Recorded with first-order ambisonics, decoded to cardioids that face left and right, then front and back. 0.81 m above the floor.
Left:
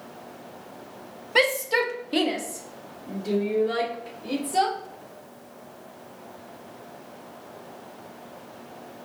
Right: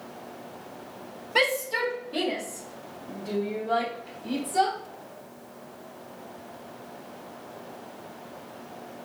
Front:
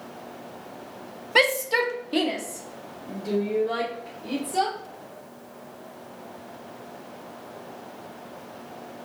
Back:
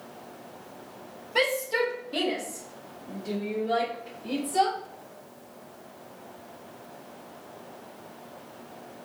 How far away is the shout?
About 0.6 m.